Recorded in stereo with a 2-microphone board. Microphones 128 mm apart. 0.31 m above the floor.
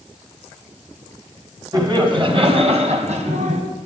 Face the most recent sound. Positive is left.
turn(degrees=-65)  # may be behind; listen again after turning